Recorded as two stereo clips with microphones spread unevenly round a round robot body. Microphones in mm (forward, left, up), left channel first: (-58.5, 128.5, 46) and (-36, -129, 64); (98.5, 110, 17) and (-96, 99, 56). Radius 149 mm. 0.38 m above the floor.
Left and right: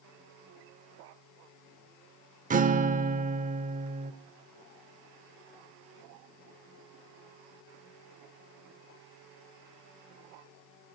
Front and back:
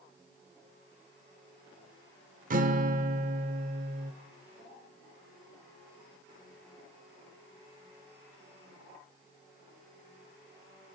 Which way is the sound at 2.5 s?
135° right.